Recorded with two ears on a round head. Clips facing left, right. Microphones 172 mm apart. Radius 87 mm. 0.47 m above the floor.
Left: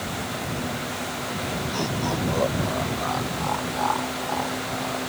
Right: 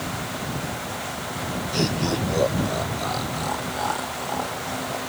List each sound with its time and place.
1.7 s laughter: 25° right (ahead or behind); by 5.0 s 10° right (ahead or behind)